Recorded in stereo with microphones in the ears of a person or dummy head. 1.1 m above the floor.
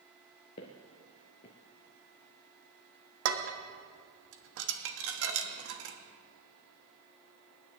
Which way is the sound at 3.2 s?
70° right (ahead or behind).